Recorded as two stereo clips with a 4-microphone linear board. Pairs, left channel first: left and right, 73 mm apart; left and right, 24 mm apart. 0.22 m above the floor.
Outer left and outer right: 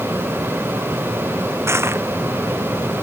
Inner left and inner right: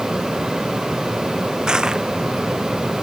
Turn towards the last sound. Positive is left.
turn(degrees=-35)  # may be behind; listen again after turning